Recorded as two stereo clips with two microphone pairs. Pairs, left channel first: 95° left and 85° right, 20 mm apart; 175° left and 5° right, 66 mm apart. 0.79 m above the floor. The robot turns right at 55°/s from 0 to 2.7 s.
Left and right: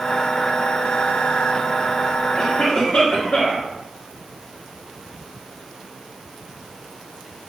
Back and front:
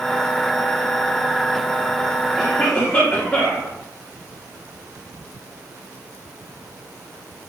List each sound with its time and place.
2.4 s a cough: 90° left, 1.2 m; by 3.7 s 105° left, 1.2 m